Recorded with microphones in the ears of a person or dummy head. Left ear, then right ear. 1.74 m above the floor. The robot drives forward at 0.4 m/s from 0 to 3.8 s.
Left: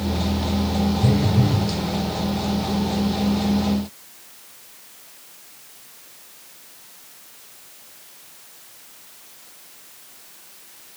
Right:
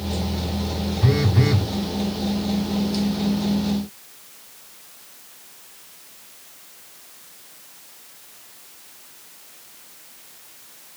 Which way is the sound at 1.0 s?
30° right (ahead or behind).